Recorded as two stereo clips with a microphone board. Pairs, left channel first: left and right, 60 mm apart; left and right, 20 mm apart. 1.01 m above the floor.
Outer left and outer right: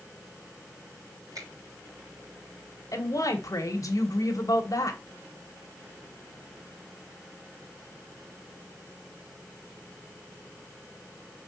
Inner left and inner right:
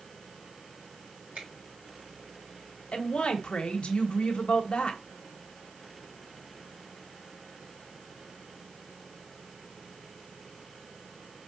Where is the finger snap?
80° right, 3.5 m.